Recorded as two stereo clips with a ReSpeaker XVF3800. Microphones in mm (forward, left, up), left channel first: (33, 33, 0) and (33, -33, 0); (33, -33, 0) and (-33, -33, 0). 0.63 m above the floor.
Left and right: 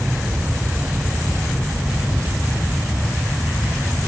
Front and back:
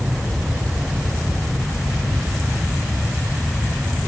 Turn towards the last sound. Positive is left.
No sound to turn to.